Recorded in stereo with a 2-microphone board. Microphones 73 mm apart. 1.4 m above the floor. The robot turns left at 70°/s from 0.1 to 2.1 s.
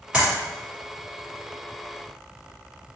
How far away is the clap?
About 1.9 m.